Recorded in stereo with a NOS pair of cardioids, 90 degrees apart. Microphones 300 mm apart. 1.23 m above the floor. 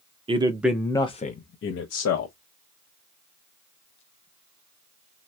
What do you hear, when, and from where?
0.3 s a man speaking: 20° right, 0.7 m; by 2.4 s 60° left, 0.9 m